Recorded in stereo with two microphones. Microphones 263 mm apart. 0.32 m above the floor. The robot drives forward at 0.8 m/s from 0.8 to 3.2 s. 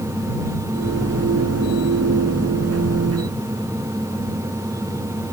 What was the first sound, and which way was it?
Only background noise.